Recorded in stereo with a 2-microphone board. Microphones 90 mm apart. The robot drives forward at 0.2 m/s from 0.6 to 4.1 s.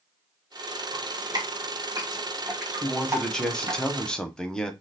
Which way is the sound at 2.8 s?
5° left (ahead or behind).